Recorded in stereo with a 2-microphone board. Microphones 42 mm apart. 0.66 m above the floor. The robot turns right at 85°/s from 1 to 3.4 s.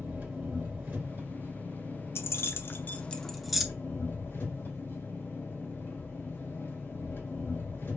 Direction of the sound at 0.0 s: 130° right.